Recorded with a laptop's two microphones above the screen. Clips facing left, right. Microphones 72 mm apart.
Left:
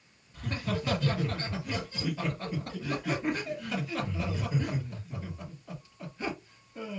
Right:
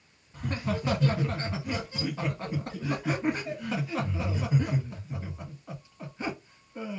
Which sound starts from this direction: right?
Laughter, at 0.3 s.